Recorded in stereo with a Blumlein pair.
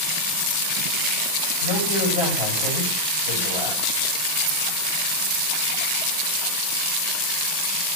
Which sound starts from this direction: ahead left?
A man speaking, at 1.6 s.